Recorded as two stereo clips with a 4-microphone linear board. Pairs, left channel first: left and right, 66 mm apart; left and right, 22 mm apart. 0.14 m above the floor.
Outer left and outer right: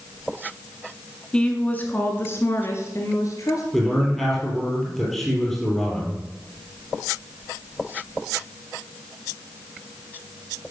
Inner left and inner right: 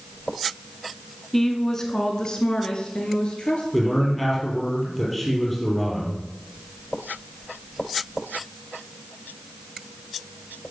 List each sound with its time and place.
1.3 s a woman speaking: 15° left (ahead or behind), 1.1 m; by 3.6 s 55° left (ahead or behind), 2 m
3.7 s a man speaking: centre (ahead or behind), 3.5 m